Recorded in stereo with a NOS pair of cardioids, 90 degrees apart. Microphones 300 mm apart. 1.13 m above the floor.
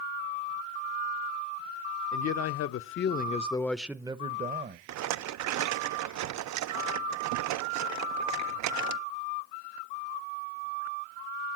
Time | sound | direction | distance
2.1 | a man speaking | 65° left | 0.9 m
4.9 | a rattle | 65° right | 0.6 m